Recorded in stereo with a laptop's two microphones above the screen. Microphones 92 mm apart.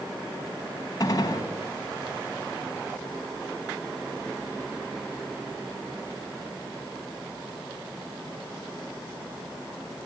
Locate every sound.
1.0 s a gunshot: 40° left (ahead or behind), 4 m